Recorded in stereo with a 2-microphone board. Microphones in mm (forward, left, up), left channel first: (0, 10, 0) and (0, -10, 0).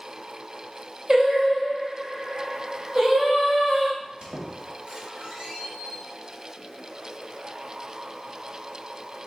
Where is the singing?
30° right (ahead or behind), 1.1 m.